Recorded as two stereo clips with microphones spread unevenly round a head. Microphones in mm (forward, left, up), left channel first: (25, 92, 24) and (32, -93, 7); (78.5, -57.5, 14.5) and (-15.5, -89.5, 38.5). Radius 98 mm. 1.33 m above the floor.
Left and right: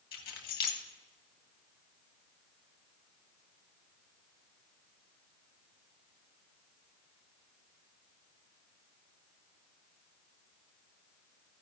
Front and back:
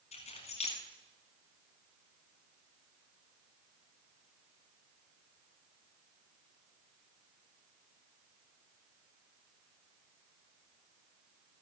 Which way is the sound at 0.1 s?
55° left.